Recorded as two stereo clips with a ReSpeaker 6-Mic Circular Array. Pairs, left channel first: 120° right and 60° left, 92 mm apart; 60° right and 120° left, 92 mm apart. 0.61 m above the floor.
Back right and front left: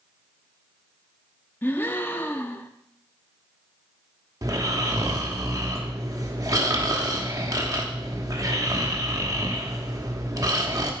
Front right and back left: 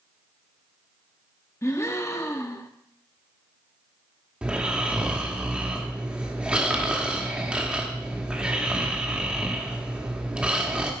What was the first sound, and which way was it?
A gasp, 75° right.